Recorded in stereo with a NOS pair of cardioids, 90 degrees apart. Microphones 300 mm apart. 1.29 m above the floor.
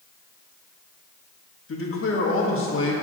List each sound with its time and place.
1.7 s a man speaking: 45° left, 1.5 m